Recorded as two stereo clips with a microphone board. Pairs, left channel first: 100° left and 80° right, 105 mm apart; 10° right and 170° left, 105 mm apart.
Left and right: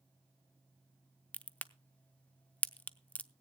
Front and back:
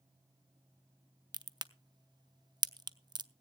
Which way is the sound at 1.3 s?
160° left.